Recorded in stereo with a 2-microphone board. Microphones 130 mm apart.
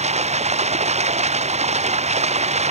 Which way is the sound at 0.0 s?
60° right (ahead or behind).